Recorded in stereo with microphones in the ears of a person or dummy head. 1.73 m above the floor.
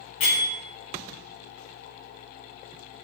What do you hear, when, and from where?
0.2 s a bell: 35° left (ahead or behind), 0.7 m